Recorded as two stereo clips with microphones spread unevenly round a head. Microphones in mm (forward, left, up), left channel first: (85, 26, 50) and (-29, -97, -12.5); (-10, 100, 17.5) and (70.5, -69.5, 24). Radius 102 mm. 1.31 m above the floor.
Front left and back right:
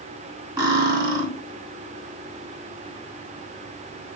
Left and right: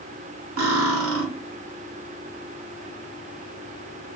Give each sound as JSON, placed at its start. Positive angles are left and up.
{"t": 0.6, "sound": "cutlery clinking", "azimuth_deg": -60, "distance_m": 1.9}